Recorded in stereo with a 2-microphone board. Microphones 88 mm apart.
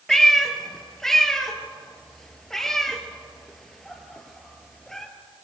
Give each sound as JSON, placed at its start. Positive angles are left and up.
{"t": 0.1, "sound": "a cat meowing", "side_deg": 5, "distance_m": 2.0}